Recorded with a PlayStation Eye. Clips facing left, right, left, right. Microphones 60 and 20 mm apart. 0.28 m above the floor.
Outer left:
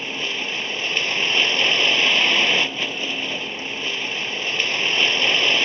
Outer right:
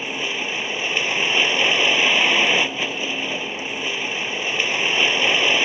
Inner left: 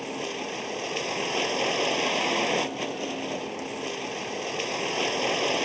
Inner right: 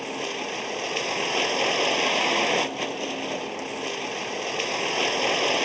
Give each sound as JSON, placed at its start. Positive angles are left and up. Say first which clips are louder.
{"t": 0.0, "sound": "a vehicle", "louder": "outer right 1 dB, inner right 2 dB", "side_deg": -10}